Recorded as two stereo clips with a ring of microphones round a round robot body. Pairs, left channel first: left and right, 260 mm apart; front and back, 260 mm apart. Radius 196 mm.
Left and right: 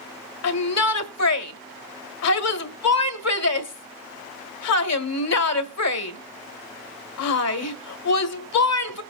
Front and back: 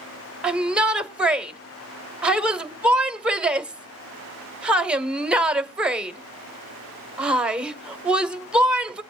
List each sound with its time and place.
0.4 s a shout: 95° left, 1.8 m